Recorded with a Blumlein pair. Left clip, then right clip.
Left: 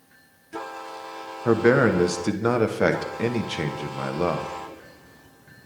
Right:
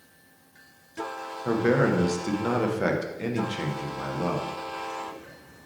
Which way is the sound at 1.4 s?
70° left.